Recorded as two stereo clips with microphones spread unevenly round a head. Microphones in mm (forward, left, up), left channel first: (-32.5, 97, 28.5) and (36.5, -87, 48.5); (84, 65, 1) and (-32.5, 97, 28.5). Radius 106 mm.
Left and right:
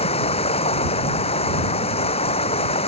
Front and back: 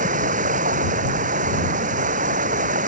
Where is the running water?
170° left.